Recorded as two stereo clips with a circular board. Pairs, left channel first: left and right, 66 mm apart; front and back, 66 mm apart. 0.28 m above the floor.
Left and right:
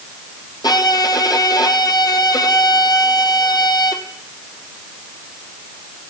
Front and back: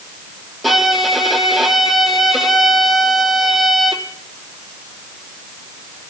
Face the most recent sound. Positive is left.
turn(degrees=90)